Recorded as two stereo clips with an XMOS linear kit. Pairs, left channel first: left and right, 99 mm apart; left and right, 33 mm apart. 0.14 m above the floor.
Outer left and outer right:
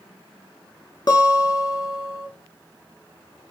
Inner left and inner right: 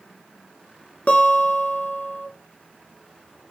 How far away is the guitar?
About 0.7 m.